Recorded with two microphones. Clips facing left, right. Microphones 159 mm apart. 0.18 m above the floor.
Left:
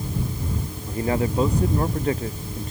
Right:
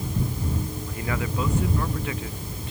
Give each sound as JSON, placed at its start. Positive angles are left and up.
{"t": 0.9, "sound": "a man speaking", "side_deg": 35}